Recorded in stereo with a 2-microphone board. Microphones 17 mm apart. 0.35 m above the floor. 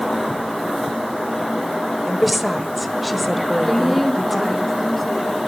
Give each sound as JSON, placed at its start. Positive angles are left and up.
{"t": 2.1, "sound": "a woman speaking", "side_deg": 0, "distance_m": 1.4}
{"t": 3.6, "sound": "a woman speaking", "side_deg": 10, "distance_m": 3.0}